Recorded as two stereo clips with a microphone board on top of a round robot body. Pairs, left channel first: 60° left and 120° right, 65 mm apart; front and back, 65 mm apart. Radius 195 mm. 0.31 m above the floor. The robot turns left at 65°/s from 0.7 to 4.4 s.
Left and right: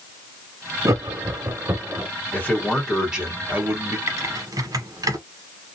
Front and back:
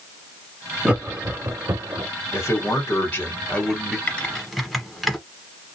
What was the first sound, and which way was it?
Laughter, 110° right.